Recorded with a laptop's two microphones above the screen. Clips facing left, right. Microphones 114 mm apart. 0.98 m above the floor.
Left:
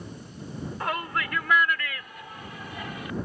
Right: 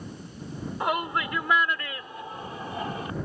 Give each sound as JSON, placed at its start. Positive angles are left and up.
{"t": 0.8, "sound": "a shout", "side_deg": -20}